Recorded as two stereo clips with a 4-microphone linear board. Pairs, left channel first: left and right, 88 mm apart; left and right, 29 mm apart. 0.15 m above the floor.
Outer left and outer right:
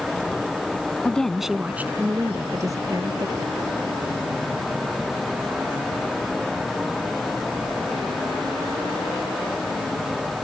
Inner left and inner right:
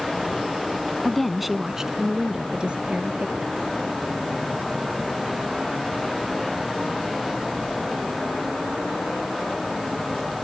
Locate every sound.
1.1 s a woman speaking: 15° left (ahead or behind); by 3.5 s 45° right (ahead or behind)